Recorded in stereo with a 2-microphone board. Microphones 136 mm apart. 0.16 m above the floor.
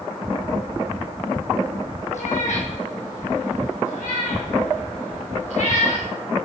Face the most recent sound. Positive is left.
turn(degrees=75)  # may be behind; listen again after turning